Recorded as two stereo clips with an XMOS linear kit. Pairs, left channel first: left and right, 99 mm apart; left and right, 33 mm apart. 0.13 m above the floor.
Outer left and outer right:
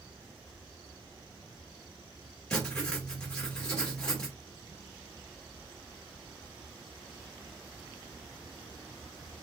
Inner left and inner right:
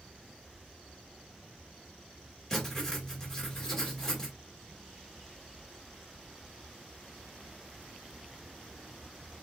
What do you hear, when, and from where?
2.5 s writing: 10° left (ahead or behind), 2.5 m